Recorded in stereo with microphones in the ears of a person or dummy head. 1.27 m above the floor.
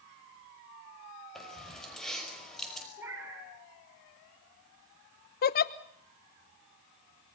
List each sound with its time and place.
1.4 s keys jangling: 5° left (ahead or behind), 5 m
3.0 s a cat meowing: 10° right (ahead or behind), 6.5 m
5.4 s a giggle: 40° left (ahead or behind), 0.9 m